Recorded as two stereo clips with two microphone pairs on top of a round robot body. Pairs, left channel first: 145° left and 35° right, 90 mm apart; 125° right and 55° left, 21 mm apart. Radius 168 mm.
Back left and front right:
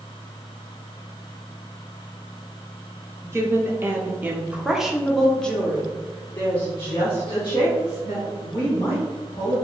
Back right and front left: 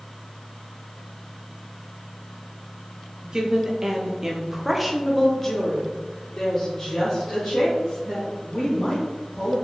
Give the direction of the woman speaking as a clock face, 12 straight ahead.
12 o'clock.